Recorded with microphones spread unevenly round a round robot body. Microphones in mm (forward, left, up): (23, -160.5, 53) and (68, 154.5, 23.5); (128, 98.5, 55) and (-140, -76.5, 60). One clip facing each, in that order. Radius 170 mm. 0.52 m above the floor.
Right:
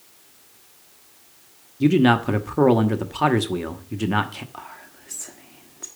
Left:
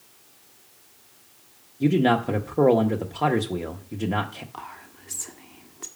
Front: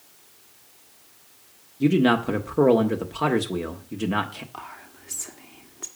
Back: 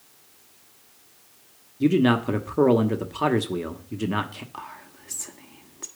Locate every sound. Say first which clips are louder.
1.8 s a man speaking: right 4 dB, even; 65° right, 1.2 m
4.5 s whispering: even, even; 130° left, 1.3 m